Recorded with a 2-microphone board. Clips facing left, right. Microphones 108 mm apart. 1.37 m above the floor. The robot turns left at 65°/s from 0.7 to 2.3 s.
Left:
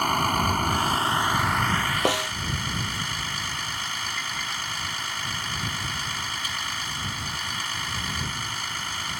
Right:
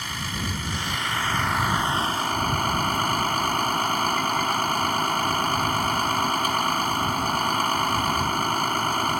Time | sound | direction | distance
0.0 | a vehicle | 55° left | ?
2.0 | a snare drum | 85° left | ?